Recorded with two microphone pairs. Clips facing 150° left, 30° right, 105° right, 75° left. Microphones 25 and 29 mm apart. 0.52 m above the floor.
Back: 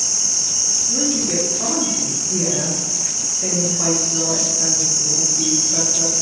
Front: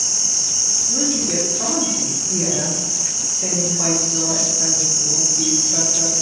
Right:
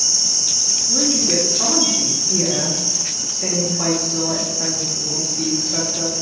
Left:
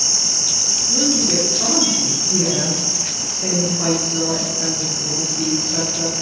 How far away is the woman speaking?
About 0.7 m.